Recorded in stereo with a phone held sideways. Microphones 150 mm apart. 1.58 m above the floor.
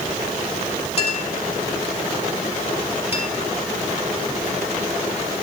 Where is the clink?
40° left (ahead or behind), 3.5 m.